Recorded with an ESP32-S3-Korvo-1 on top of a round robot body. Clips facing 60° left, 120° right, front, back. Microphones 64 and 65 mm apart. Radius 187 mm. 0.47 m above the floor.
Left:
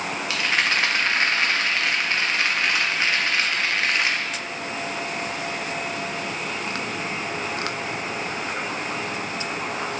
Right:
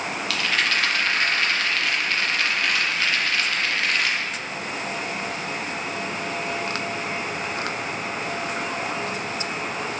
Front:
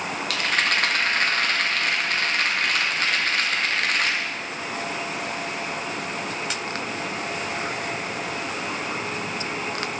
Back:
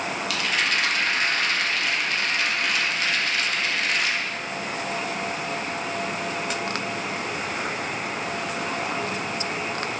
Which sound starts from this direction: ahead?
A rattle, at 0.3 s.